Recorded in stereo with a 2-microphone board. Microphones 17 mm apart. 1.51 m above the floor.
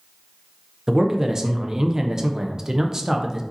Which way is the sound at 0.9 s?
30° right (ahead or behind).